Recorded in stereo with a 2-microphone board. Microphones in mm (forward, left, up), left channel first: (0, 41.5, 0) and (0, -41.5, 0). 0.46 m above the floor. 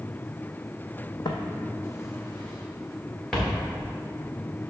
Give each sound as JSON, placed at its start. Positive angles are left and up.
{"t": 1.2, "sound": "footsteps", "side_deg": 65, "distance_m": 1.0}